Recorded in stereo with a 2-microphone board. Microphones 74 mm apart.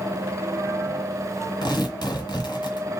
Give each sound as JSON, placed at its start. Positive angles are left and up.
{"t": 1.6, "sound": "tearing paper", "side_deg": 65, "distance_m": 2.0}